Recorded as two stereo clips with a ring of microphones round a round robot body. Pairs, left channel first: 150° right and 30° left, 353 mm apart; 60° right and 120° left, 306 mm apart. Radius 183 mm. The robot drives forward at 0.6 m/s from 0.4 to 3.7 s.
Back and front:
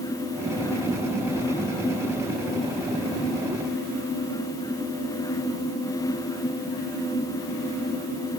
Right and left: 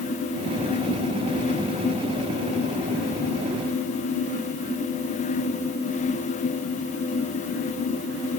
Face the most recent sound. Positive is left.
No sound to turn to.